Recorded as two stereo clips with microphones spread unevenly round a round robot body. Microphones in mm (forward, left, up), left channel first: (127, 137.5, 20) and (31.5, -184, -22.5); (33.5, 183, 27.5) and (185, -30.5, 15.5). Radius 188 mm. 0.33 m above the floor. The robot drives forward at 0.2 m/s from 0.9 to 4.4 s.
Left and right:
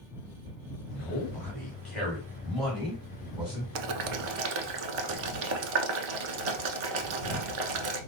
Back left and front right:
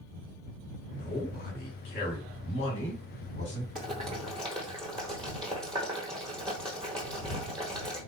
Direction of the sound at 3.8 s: 125° right.